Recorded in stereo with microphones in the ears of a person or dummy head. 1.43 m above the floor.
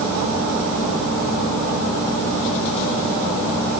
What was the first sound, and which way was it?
Only background noise.